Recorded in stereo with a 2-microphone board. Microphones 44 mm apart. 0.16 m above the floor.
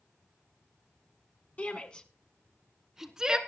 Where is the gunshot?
I don't hear a gunshot.